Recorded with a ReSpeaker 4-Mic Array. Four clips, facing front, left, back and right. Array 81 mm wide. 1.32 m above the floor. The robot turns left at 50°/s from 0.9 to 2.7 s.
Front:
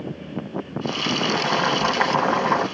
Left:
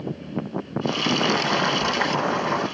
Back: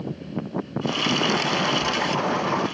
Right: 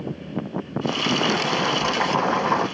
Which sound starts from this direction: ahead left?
Boiling, at 1.3 s.